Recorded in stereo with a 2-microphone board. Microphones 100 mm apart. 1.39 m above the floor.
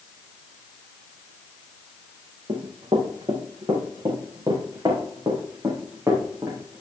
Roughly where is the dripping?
No dripping in this recording.